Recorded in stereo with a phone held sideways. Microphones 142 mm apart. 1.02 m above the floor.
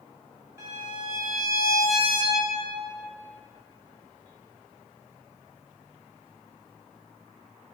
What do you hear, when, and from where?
0.6 s a violin: 20° right (ahead or behind), 1.9 m